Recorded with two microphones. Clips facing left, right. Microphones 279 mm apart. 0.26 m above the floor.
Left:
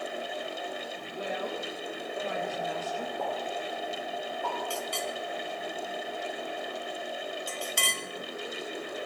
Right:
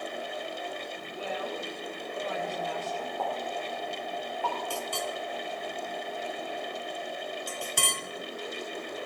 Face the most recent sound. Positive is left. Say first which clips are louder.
# even
turn(degrees=-60)  # may be behind; listen again after turning